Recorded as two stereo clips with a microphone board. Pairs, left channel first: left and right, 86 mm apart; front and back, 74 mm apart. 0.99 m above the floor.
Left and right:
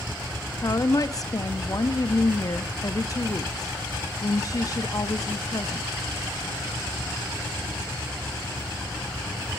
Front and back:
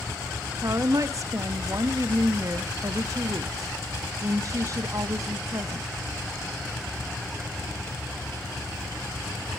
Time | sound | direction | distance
0.6 | a woman speaking | 140° left | 1.2 m